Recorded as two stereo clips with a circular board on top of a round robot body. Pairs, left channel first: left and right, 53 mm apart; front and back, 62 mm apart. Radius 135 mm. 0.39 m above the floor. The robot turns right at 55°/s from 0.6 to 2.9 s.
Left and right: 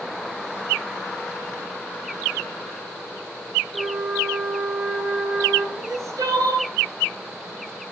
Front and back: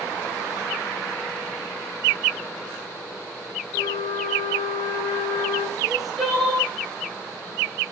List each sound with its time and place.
3.7 s a flute: 10° right, 3.5 m
5.8 s crying: 95° right, 6.5 m